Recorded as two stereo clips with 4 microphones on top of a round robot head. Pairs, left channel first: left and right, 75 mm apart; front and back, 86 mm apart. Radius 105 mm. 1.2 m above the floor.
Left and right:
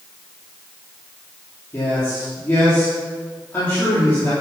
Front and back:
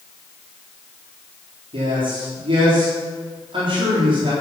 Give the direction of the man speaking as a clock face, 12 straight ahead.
7 o'clock.